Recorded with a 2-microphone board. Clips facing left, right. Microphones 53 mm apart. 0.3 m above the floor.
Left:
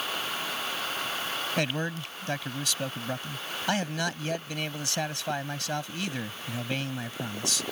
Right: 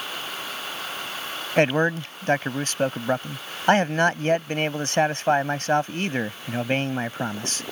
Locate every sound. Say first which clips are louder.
1.6 s a man speaking: right 13 dB; 40° right (ahead or behind)